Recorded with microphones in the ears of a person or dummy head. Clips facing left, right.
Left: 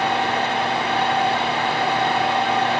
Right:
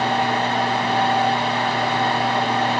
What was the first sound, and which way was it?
A fan, 30° right (ahead or behind).